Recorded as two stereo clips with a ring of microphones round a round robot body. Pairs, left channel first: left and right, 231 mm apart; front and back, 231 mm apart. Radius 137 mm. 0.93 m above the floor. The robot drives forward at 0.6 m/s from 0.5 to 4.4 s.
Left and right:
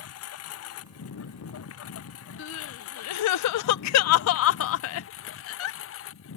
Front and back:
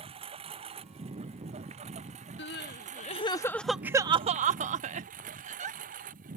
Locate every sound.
0.0 s a lawn mower: 110° left; by 6.4 s 120° left
2.4 s crying: 45° left; by 5.8 s 115° left